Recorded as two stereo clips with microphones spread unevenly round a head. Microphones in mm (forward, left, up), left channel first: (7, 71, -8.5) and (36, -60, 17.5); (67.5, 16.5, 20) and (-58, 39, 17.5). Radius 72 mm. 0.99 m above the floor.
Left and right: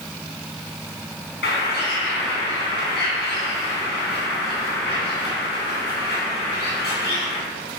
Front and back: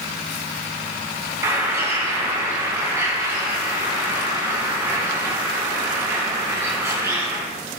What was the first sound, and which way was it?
A bird, 100° left.